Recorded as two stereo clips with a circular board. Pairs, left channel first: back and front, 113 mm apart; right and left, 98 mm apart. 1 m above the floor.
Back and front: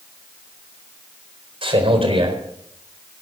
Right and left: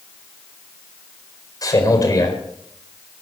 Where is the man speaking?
40° right, 4 m.